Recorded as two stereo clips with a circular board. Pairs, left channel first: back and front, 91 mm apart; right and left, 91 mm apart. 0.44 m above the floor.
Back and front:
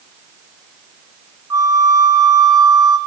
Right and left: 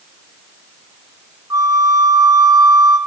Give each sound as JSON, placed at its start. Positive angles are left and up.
{"t": 1.5, "sound": "a flute", "azimuth_deg": 45, "distance_m": 0.9}